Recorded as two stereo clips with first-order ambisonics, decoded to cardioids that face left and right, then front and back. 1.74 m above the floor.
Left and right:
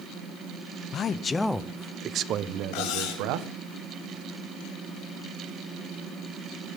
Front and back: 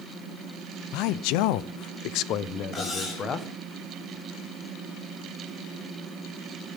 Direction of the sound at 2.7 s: 70° left.